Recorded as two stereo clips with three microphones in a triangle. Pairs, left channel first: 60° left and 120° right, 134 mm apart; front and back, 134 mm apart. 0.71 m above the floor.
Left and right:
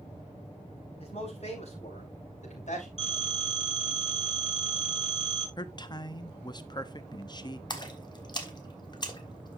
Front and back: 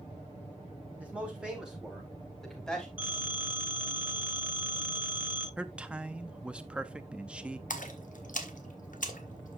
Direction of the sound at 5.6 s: 100° left.